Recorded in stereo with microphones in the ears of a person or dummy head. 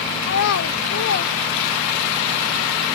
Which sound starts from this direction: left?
A child speaking, at 0.2 s.